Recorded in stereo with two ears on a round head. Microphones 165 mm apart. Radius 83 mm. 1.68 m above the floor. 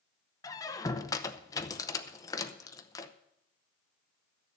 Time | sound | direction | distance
0.4 | a squeak | 20° left (ahead or behind) | 0.7 m